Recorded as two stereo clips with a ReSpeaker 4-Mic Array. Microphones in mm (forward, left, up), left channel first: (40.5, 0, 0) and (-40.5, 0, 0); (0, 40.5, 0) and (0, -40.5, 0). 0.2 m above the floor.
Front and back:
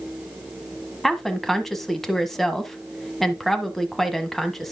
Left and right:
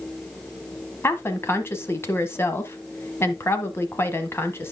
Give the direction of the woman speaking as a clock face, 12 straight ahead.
9 o'clock.